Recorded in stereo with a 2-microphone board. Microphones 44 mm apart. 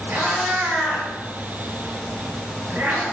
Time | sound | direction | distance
0.1 | a cat meowing | 50° right (ahead or behind) | 2.0 m